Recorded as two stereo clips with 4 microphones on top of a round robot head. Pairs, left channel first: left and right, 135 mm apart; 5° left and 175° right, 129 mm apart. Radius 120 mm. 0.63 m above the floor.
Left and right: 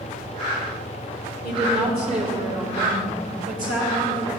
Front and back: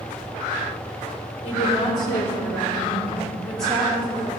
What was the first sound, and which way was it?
A woman speaking, 40° right.